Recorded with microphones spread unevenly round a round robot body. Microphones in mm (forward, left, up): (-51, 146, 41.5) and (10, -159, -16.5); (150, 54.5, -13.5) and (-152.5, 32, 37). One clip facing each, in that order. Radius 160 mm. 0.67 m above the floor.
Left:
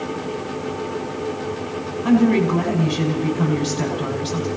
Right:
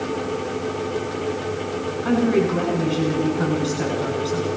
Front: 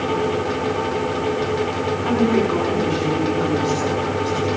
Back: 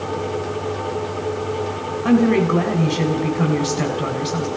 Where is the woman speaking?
145° left, 6 m.